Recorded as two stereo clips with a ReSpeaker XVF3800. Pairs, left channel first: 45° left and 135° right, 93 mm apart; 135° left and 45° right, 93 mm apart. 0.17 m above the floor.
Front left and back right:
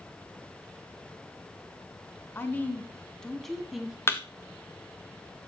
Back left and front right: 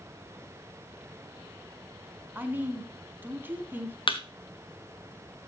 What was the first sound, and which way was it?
A woman speaking, 5° left.